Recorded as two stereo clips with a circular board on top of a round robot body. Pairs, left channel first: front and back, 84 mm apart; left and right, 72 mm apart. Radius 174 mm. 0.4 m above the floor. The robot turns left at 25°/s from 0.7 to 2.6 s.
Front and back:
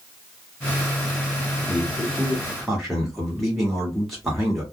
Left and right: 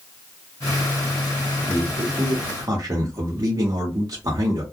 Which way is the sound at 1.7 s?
70° right.